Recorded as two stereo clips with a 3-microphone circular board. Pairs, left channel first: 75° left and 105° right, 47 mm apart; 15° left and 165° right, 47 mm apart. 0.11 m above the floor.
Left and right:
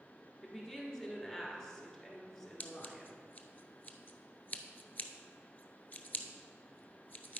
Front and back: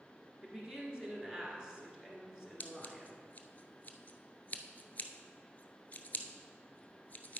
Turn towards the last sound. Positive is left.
turn(degrees=50)